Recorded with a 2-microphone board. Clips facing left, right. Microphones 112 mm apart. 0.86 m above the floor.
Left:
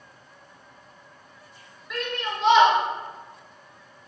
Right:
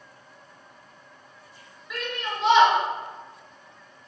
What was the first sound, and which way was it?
A shout, centre (ahead or behind).